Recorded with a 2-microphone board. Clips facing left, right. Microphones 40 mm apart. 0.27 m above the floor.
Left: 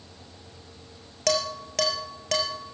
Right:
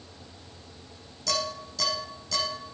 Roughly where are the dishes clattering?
Left.